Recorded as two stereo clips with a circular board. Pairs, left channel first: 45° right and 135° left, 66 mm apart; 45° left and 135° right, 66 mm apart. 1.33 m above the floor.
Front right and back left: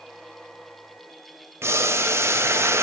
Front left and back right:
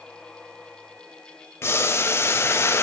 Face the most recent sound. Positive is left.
turn(degrees=90)